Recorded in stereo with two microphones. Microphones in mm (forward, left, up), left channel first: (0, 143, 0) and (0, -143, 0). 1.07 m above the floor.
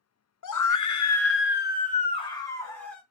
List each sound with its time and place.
0.4 s a scream: 80° left, 0.6 m; by 3.0 s 5° left (ahead or behind), 1.3 m